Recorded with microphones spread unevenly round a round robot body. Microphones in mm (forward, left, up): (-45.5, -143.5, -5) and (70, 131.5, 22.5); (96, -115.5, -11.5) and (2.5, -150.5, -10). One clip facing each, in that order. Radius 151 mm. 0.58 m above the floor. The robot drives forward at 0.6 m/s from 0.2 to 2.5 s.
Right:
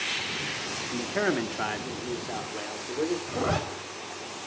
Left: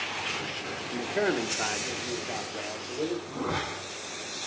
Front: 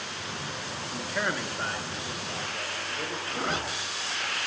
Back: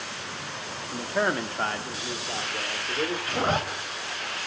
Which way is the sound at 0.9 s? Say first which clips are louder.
Even, back 5 dB; 115° right.